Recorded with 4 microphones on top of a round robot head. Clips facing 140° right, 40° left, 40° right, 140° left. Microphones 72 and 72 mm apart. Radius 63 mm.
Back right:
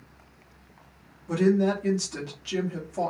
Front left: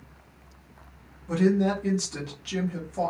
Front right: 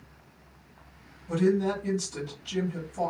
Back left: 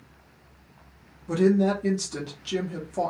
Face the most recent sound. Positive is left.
turn(degrees=135)